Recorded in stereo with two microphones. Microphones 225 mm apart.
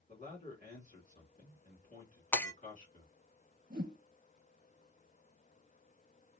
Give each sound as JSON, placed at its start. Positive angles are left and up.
{"t": 0.1, "sound": "a man speaking", "side_deg": 40, "distance_m": 2.0}
{"t": 2.3, "sound": "breaking glass", "side_deg": 10, "distance_m": 0.9}
{"t": 3.7, "sound": "a whoosh", "side_deg": -40, "distance_m": 1.1}